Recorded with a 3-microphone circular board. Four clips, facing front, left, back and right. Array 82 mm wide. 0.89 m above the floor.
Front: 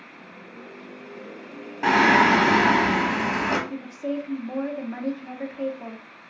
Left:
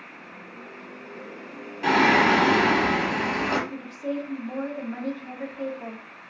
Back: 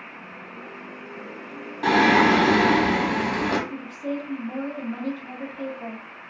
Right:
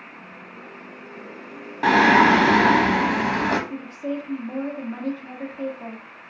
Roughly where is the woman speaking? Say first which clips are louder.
Right 2 dB, front 1 dB; ahead.